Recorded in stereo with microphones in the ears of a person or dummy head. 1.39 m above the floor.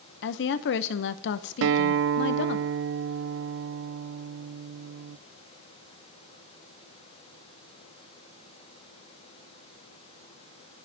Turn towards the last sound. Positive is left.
turn(degrees=-75)  # may be behind; listen again after turning